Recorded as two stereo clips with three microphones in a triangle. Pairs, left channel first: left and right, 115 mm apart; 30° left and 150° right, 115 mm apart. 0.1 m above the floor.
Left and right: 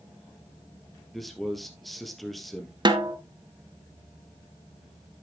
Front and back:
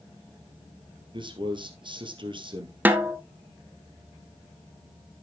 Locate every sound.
1.1 s a man speaking: straight behind, 2 m
2.9 s a snare drum: 85° right, 0.9 m